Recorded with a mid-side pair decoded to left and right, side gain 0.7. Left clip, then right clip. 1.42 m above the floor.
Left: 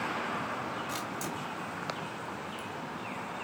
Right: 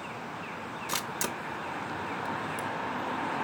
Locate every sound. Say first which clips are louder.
0.9 s a camera shutter: right 3 dB; 50° right, 1.3 m